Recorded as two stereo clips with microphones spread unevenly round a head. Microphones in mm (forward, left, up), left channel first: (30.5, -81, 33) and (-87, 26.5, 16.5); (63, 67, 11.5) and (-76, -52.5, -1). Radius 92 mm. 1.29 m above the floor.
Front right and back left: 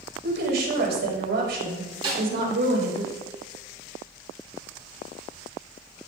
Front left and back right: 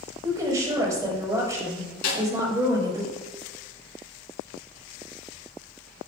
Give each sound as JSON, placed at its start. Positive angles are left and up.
{"t": 0.2, "sound": "a woman speaking", "azimuth_deg": 150, "distance_m": 5.0}
{"t": 2.0, "sound": "a snare drum", "azimuth_deg": 75, "distance_m": 5.0}